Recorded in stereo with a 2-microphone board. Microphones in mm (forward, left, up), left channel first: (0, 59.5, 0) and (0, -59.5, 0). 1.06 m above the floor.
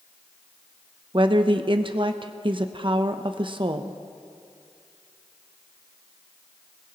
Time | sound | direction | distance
1.1 | a woman speaking | 45° right (ahead or behind) | 0.6 m